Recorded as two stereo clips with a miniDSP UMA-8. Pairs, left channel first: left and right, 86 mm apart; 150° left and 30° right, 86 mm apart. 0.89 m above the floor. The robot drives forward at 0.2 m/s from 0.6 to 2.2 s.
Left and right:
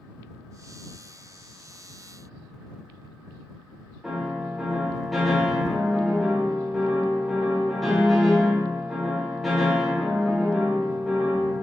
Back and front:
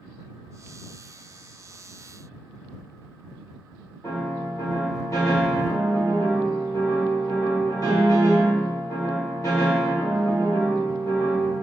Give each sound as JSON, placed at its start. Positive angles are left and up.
{"t": 4.0, "sound": "a piano", "azimuth_deg": 180, "distance_m": 1.2}